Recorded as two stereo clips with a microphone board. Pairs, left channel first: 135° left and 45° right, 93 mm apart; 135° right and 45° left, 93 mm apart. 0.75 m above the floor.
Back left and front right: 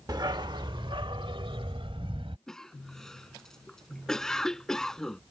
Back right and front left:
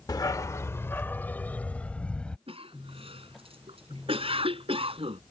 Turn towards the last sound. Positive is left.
turn(degrees=50)